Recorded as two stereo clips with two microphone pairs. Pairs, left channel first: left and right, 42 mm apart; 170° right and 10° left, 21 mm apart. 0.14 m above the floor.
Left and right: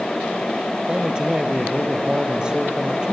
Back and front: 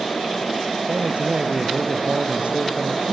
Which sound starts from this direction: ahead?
A man speaking, at 0.9 s.